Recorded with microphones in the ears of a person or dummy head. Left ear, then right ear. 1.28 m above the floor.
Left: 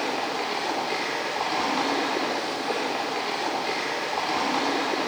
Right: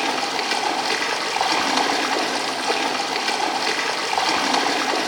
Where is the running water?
60° right (ahead or behind), 2.5 m.